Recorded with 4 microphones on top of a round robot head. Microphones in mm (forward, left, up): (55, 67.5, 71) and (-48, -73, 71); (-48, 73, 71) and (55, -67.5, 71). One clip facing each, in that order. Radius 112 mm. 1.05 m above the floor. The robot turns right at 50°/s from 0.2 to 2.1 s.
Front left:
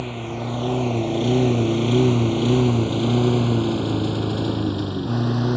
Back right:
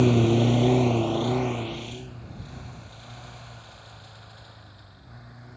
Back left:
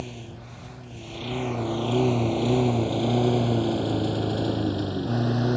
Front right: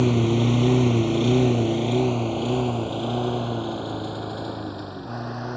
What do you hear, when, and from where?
0.0 s a lawn mower: 80° right; by 5.6 s 70° left